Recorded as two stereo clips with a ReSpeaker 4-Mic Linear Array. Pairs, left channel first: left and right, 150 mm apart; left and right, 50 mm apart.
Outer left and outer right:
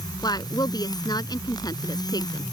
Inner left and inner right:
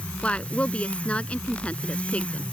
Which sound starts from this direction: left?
A woman speaking, at 0.2 s.